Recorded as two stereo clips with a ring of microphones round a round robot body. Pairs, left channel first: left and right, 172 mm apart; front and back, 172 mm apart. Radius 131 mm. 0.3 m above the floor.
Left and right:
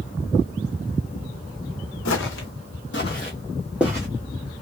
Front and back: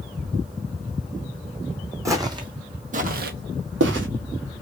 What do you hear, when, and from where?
2.0 s footsteps: 105° left, 1.1 m; by 4.1 s 165° right, 0.9 m